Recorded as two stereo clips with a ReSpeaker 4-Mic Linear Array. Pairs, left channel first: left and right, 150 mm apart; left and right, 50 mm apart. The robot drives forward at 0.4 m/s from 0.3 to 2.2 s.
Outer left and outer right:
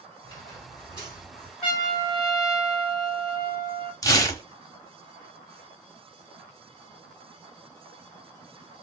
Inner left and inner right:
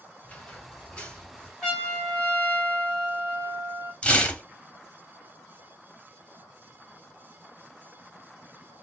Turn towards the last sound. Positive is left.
turn(degrees=25)  # may be behind; listen again after turning